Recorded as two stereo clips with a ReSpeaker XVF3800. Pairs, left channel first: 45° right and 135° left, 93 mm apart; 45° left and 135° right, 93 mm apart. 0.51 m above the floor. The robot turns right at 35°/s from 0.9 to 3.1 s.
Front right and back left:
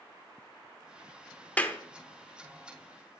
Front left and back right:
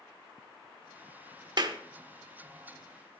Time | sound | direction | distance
1.6 | a clap | 115° right | 0.7 m